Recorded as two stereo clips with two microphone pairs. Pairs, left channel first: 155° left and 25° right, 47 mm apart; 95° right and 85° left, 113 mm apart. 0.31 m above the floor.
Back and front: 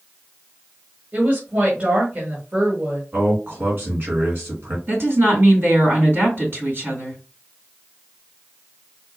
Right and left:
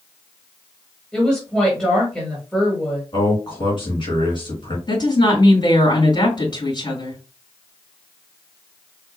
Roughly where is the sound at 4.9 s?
Ahead right.